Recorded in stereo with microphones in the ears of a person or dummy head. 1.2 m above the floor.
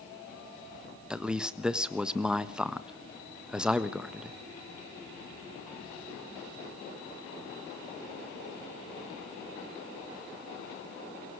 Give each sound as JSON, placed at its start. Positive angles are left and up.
{"t": 1.1, "sound": "a man speaking", "side_deg": -5, "distance_m": 1.2}